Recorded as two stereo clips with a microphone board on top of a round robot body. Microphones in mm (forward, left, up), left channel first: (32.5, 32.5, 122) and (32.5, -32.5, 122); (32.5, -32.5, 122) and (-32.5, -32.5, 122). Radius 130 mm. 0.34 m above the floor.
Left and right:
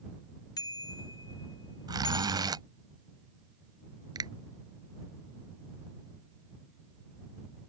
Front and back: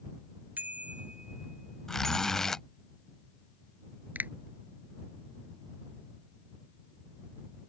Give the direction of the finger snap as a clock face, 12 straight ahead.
4 o'clock.